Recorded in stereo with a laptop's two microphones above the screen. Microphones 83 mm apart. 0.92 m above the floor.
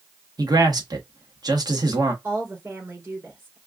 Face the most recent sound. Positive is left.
turn(degrees=-40)  # may be behind; listen again after turning